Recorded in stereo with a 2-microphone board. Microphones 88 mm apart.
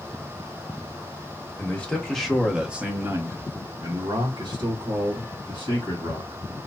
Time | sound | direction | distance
1.6 | a man speaking | 20° left (ahead or behind) | 1.1 m